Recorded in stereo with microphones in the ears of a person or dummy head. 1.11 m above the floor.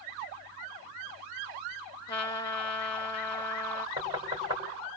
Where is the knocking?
25° right (ahead or behind), 5 m.